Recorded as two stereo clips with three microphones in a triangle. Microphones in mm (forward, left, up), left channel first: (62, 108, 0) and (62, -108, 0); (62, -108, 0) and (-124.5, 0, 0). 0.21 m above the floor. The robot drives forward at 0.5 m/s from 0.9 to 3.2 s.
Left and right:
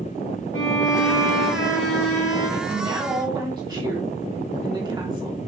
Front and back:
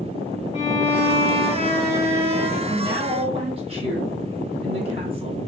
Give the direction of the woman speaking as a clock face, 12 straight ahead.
5 o'clock.